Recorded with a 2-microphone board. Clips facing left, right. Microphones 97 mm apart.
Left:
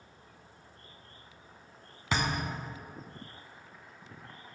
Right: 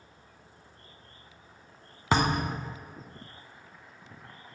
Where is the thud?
50° right (ahead or behind), 0.6 m.